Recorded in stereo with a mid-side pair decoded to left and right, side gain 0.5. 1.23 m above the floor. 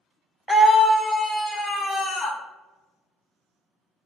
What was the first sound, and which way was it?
A scream, 10° left.